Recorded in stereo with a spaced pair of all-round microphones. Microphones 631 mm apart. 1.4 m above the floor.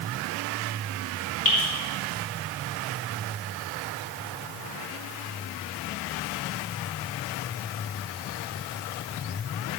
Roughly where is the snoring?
No snoring in this recording.